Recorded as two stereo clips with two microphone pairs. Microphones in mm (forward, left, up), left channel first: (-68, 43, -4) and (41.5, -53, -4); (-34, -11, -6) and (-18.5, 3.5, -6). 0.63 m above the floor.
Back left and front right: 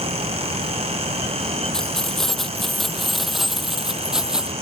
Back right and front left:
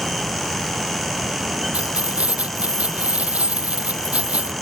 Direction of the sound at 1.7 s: 50° left.